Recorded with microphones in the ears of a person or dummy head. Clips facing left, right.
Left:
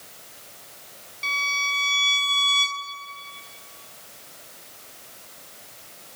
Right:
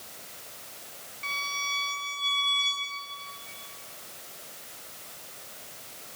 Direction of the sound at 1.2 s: 50° left (ahead or behind).